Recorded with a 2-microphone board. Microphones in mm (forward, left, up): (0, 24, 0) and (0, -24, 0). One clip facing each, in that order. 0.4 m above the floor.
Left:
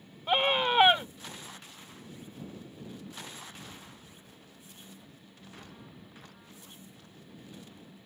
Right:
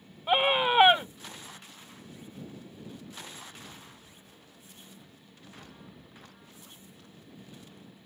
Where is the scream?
10° right (ahead or behind).